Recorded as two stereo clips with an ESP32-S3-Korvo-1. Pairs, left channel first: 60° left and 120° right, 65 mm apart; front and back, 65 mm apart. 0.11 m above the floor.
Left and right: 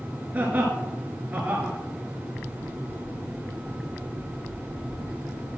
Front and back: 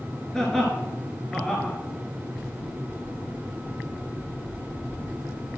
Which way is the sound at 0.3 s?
75° right.